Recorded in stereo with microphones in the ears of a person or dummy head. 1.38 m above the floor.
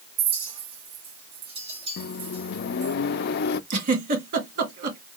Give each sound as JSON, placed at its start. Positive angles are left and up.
{"t": 0.2, "sound": "a clink", "side_deg": -30, "distance_m": 4.5}
{"t": 2.0, "sound": "a microwave", "side_deg": 55, "distance_m": 0.6}
{"t": 3.7, "sound": "a giggle", "side_deg": -50, "distance_m": 1.8}